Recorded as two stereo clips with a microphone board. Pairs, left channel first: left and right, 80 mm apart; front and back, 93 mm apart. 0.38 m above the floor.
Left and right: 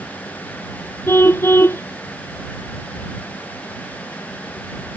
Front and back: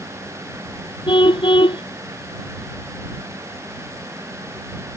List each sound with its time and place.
1.1 s a car horn: 30° left